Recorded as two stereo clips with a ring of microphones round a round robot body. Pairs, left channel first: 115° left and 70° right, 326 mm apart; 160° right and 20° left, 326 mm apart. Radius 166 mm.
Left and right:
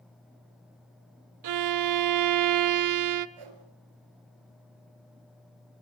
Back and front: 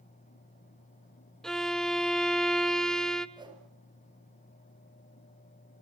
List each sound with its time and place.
1.4 s a violin: 70° right, 0.9 m
3.4 s a whoosh: 55° right, 3 m